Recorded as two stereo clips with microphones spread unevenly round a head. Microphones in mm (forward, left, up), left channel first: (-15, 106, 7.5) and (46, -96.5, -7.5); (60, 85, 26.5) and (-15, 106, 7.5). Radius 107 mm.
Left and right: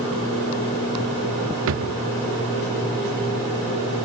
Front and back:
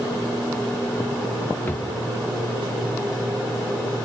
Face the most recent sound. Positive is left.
turn(degrees=-80)